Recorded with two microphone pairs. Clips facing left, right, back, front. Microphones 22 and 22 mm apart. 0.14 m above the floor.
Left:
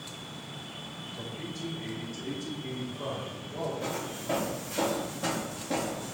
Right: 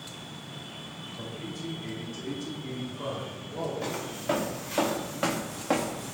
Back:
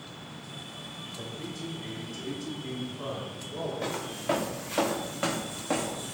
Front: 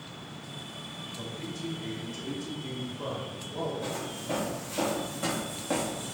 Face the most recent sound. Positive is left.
turn(degrees=-85)